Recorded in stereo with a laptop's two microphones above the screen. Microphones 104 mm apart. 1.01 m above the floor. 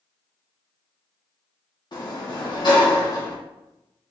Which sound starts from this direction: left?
A sliding door, at 1.9 s.